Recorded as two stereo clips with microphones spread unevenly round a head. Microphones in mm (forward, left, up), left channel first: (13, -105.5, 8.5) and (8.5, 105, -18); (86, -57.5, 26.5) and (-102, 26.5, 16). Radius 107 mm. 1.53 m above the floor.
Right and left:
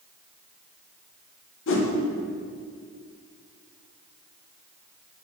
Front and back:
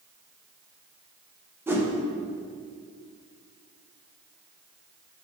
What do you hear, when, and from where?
1.7 s a whoosh: 125° right, 1.3 m